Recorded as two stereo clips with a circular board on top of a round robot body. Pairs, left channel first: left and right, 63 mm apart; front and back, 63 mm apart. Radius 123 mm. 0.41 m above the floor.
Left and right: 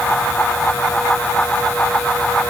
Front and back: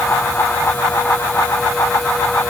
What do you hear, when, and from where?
Only background noise.